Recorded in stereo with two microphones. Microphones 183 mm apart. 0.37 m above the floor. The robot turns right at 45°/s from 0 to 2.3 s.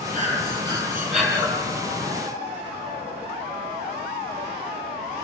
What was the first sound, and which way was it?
Breathing, 50° right.